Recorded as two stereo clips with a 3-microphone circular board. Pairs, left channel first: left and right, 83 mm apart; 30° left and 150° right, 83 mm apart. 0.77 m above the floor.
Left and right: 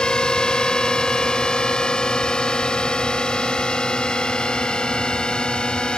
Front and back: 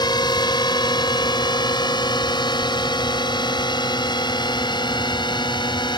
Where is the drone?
10° left.